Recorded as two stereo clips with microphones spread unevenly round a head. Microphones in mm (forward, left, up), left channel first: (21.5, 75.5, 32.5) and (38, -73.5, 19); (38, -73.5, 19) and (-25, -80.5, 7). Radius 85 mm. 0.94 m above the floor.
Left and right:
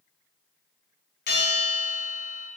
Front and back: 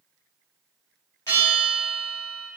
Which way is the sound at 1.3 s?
80° left.